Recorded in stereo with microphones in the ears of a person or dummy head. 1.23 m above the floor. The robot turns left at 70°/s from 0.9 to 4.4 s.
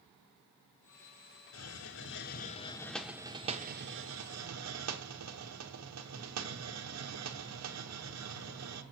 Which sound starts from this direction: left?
A hiss, at 1.5 s.